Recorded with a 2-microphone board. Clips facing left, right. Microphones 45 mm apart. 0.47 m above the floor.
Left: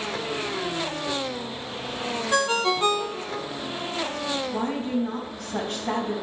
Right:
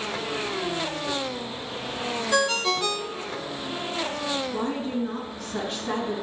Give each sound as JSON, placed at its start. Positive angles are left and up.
{"t": 2.3, "sound": "a ringtone", "side_deg": 25, "distance_m": 0.7}
{"t": 4.5, "sound": "a woman speaking", "side_deg": 65, "distance_m": 3.0}